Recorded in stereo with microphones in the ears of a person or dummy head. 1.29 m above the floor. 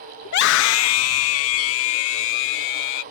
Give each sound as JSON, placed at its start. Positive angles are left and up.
{"t": 0.2, "sound": "a scream", "side_deg": 50}